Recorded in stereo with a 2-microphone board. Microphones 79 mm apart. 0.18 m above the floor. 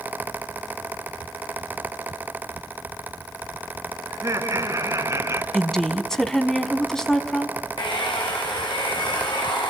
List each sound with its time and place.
4.1 s laughter: 45° right (ahead or behind), 2 m; by 5.4 s 40° right (ahead or behind), 1.7 m
5.5 s a woman speaking: 5° left (ahead or behind), 1.2 m
7.8 s a hair dryer: 70° left (ahead or behind), 5.5 m